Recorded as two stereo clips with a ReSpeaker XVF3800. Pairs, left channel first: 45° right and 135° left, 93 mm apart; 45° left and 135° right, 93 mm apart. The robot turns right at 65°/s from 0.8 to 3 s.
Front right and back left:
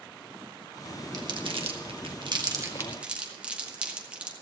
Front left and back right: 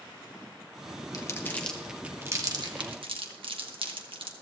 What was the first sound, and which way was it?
Crumpling, 90° left.